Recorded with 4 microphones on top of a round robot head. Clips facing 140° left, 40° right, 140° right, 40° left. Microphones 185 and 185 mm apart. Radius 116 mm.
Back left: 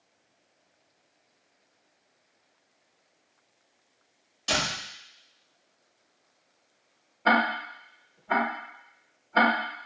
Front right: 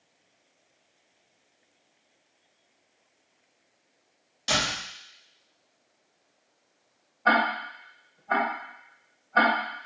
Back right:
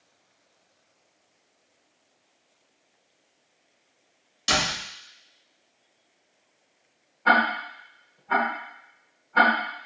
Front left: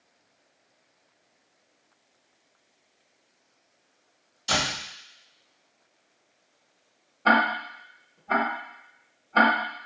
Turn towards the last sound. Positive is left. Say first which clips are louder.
# even, front left 1 dB
turn(degrees=85)